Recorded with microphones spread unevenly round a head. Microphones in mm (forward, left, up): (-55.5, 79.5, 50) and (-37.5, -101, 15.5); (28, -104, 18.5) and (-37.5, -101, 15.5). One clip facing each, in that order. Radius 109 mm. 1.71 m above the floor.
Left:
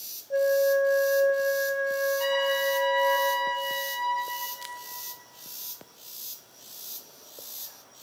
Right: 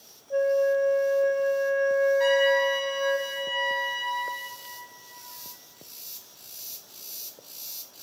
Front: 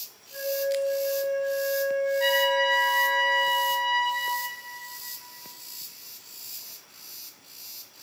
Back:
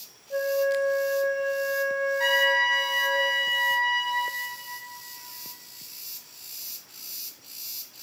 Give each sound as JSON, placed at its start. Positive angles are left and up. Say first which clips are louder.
{"t": 0.3, "sound": "a flute", "louder": "even, back 3 dB", "azimuth_deg": 175, "distance_m": 0.6}
{"t": 2.2, "sound": "a trumpet", "louder": "right 5 dB, back 2 dB", "azimuth_deg": -165, "distance_m": 2.5}